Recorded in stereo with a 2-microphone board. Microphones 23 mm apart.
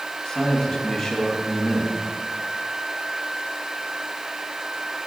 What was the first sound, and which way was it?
A man speaking, 35° left (ahead or behind).